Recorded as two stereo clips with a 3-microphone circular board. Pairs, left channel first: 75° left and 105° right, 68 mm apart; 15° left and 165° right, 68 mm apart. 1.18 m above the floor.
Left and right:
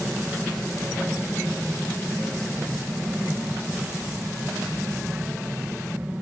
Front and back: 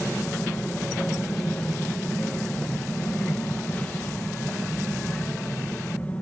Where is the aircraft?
45° right.